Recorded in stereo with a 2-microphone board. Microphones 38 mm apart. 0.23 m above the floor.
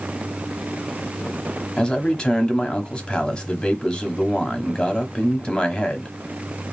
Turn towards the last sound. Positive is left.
turn(degrees=25)  # may be behind; listen again after turning